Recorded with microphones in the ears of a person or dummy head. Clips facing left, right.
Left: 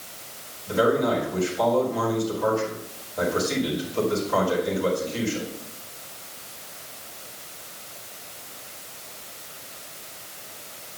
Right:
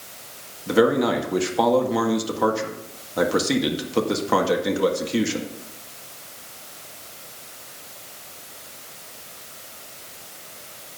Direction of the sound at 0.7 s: 85° right.